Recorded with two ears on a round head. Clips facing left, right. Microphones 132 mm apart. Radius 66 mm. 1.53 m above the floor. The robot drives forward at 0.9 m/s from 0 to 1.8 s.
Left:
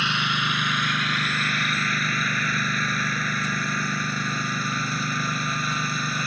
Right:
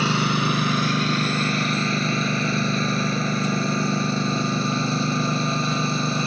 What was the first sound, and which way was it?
A lawn mower, 35° right (ahead or behind).